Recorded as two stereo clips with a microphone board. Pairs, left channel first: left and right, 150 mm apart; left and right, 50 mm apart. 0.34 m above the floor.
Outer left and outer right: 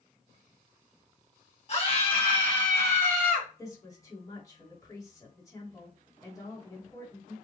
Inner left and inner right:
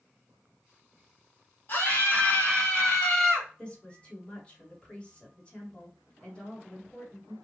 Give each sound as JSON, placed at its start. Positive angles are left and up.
{"t": 1.7, "sound": "a scream", "side_deg": 45, "distance_m": 1.5}
{"t": 3.6, "sound": "a woman speaking", "side_deg": 25, "distance_m": 1.7}